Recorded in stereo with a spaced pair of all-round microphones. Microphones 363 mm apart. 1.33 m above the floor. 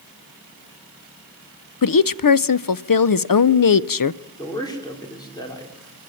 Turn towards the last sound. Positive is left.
turn(degrees=10)  # may be behind; listen again after turning